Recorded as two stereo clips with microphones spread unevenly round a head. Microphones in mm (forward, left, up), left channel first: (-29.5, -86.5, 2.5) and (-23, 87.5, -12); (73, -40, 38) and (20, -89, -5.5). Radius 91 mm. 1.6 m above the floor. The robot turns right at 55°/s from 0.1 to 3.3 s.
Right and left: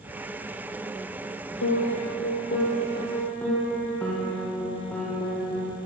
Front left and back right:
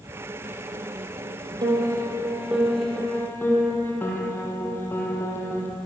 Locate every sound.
1.6 s a piano: 105° right, 8 m; by 5.7 s 10° right, 8 m